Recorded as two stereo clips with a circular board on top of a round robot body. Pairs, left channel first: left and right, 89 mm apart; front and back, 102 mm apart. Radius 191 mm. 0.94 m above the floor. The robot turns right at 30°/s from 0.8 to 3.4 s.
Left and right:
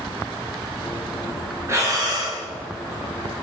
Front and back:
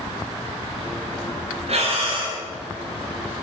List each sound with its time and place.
1.7 s breathing: 155° right, 4 m; by 2.4 s 135° right, 4 m